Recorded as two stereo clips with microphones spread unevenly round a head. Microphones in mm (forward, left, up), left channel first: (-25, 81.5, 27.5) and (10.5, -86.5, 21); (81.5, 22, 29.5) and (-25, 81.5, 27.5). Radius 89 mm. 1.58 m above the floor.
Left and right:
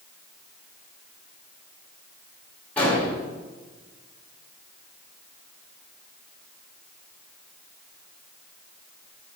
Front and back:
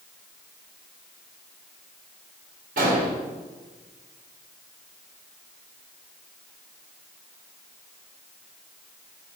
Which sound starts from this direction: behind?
An explosion, at 2.8 s.